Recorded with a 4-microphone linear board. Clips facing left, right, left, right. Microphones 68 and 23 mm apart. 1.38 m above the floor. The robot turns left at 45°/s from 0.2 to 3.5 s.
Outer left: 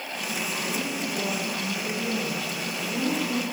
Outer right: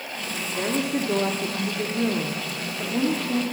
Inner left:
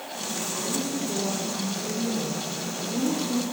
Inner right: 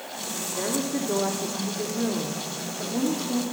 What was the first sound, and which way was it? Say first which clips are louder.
A woman speaking: outer right 10 dB, inner right 4 dB; 45° right.